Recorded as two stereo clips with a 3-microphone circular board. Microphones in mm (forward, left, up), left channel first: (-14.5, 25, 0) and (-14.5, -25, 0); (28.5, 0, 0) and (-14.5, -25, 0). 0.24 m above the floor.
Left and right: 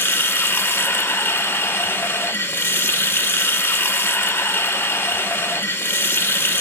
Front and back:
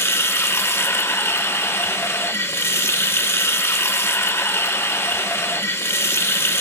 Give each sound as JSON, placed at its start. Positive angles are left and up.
{"t": 0.0, "sound": "running water", "azimuth_deg": 55, "distance_m": 0.7}